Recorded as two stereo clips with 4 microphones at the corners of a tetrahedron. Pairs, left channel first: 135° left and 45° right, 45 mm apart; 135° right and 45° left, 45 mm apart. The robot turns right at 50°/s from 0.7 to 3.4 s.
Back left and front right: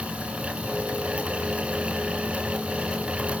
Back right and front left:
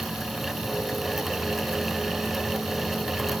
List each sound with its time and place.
Only background noise.